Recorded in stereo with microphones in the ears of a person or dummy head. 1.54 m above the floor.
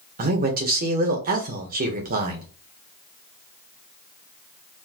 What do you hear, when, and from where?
0.2 s a man speaking: 50° right (ahead or behind), 1.1 m